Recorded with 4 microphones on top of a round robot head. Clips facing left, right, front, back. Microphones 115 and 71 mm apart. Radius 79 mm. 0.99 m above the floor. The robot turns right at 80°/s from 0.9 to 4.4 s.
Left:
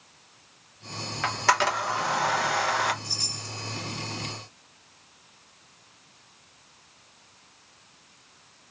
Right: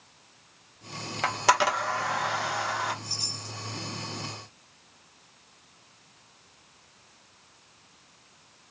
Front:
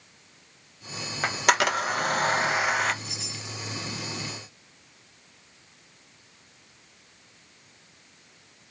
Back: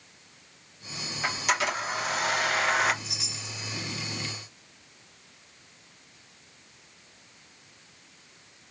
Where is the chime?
145° left, 1.4 m; by 3.6 s 175° right, 1.4 m.